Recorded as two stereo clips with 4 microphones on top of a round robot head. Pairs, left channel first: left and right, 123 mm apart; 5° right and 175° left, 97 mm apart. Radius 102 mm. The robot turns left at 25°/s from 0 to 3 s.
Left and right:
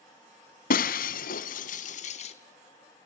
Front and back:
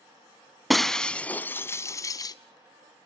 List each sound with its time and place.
0.7 s breaking glass: 85° left, 1.0 m; by 2.4 s 40° left, 1.0 m